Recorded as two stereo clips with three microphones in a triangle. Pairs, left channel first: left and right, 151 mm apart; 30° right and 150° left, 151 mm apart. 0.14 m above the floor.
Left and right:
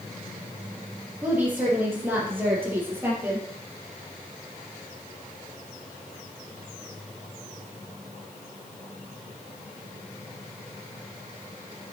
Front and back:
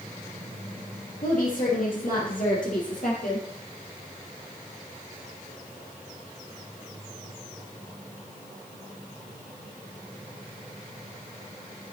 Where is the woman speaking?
15° right, 5 m.